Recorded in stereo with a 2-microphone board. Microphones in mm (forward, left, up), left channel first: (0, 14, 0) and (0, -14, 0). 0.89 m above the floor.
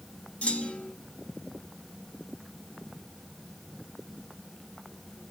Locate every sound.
0.4 s a clunk: 60° left (ahead or behind), 1.3 m